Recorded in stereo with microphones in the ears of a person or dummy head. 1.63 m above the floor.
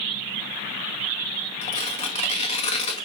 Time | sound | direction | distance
1.6 | tearing paper | 35° left (ahead or behind) | 2 m